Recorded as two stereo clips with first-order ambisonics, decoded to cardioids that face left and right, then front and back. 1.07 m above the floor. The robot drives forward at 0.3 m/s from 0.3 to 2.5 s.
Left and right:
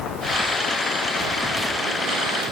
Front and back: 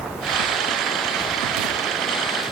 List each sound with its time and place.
Only background noise.